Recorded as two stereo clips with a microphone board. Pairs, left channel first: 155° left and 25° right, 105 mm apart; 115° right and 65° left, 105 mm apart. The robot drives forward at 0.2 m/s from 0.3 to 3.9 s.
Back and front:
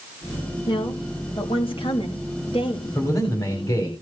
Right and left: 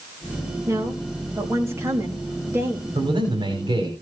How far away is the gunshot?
No gunshot in this recording.